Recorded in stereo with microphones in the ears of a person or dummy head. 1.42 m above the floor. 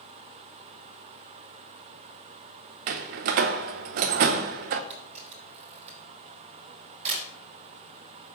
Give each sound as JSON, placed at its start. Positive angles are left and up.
{"t": 2.9, "sound": "a door slam", "side_deg": -50, "distance_m": 0.6}
{"t": 4.9, "sound": "a camera shutter", "side_deg": -40, "distance_m": 4.0}